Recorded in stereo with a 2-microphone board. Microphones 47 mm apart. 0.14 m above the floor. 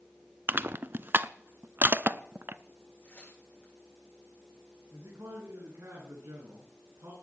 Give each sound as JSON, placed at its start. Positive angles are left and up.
{"t": 0.5, "sound": "crushing", "side_deg": -45, "distance_m": 0.5}
{"t": 3.0, "sound": "tearing paper", "side_deg": 50, "distance_m": 9.5}
{"t": 4.9, "sound": "a man speaking", "side_deg": -80, "distance_m": 8.5}